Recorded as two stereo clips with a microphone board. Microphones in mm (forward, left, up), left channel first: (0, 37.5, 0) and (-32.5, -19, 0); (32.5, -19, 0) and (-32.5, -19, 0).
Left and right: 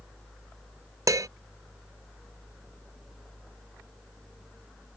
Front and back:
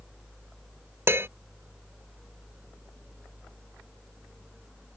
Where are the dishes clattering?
135° right.